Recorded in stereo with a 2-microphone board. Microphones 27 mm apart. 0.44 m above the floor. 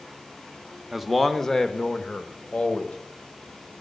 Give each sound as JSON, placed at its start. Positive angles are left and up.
{"t": 0.9, "sound": "a man speaking", "side_deg": -5, "distance_m": 0.8}